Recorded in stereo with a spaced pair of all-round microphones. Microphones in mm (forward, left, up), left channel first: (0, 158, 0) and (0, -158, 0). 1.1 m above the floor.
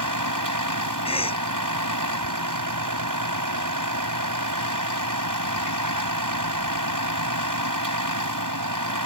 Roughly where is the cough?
Centre.